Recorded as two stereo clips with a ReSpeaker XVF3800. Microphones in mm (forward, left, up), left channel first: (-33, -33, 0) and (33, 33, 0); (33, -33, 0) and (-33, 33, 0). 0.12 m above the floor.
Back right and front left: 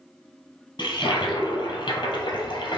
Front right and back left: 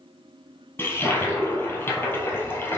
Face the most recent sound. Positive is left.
turn(degrees=-110)